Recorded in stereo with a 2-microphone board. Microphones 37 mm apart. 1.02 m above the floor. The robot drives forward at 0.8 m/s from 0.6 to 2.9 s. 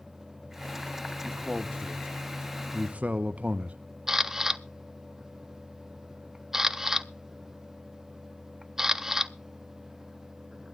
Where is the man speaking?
15° right (ahead or behind), 1.8 m; by 3.8 s 35° right (ahead or behind), 0.8 m.